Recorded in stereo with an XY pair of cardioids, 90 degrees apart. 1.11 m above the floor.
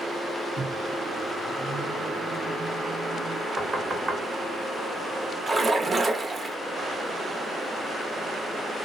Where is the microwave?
40° right, 0.6 m.